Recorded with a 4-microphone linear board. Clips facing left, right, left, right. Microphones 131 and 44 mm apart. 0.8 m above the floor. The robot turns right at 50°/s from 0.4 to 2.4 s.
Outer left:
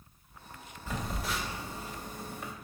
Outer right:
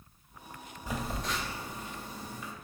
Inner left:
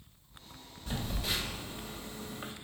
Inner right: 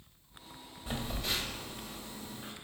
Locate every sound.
0.9 s a phone buzzing: 15° right (ahead or behind), 0.7 m; by 2.5 s 60° left (ahead or behind), 0.7 m